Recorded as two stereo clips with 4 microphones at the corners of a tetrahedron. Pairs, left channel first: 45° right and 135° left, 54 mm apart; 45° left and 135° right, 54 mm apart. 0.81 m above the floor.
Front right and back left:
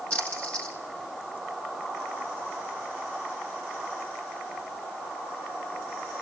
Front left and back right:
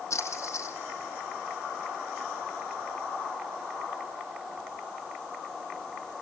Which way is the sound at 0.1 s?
20° left.